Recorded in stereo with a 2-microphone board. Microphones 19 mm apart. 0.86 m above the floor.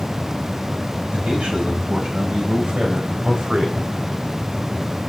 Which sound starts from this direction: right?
A man speaking, at 1.1 s.